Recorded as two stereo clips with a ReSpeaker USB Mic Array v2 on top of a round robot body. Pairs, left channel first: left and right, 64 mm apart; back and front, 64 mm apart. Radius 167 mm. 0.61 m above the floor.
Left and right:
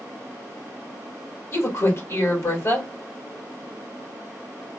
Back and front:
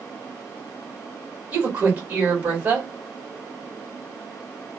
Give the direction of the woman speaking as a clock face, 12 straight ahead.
10 o'clock.